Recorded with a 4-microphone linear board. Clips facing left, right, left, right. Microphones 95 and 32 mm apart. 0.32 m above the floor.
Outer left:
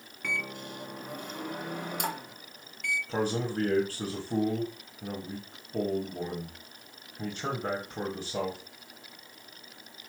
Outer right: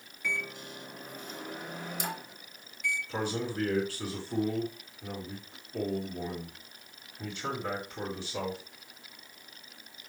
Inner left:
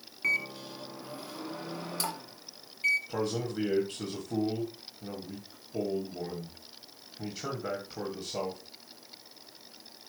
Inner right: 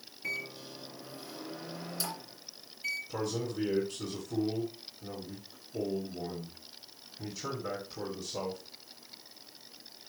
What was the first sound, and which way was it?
A microwave, 55° left (ahead or behind).